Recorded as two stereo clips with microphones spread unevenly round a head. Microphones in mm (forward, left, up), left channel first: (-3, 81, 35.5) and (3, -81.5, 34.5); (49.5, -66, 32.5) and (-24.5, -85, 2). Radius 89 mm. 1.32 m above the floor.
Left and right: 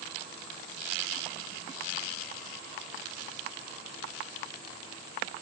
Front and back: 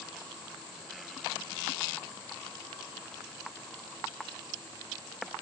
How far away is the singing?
I don't hear singing.